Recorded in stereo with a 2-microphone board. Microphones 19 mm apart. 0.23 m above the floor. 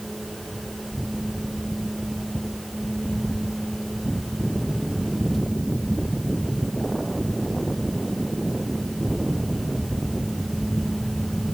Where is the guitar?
I don't hear a guitar.